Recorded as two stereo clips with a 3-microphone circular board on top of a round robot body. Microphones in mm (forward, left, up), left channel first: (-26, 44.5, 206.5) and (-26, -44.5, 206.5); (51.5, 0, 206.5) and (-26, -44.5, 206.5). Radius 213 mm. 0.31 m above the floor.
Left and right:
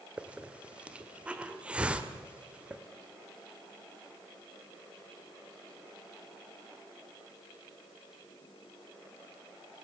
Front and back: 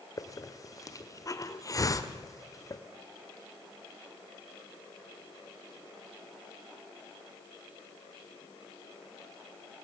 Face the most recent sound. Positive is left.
turn(degrees=-15)